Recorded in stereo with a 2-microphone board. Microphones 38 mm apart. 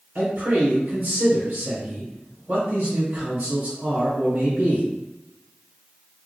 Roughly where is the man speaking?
Right.